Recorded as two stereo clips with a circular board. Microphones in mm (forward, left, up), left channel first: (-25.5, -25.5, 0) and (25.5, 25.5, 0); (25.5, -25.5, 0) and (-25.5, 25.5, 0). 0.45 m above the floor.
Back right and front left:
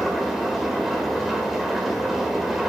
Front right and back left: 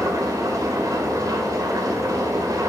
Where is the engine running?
130° left, 1.7 m.